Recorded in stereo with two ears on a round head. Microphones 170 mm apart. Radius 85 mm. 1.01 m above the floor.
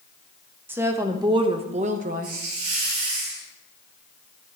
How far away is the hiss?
About 4.5 m.